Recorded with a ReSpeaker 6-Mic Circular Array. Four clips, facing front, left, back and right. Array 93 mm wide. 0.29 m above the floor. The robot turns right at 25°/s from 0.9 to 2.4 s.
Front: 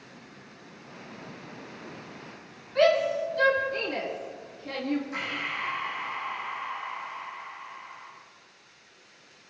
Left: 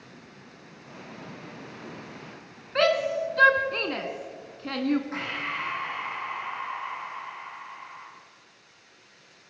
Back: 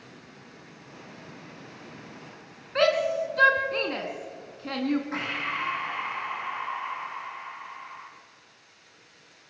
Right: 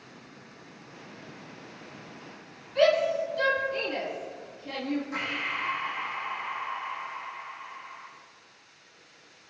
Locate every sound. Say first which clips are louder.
2.8 s a shout: right 1 dB, front 1 dB; 125° left, 3.5 m
5.1 s breathing: left 1 dB, back 3 dB; 155° left, 8.5 m